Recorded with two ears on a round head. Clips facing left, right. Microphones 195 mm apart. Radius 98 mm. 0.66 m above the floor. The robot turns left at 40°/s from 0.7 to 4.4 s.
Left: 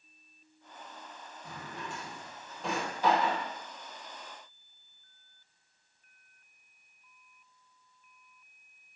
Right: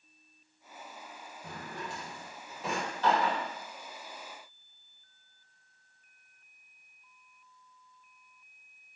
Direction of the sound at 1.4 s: 50° right (ahead or behind).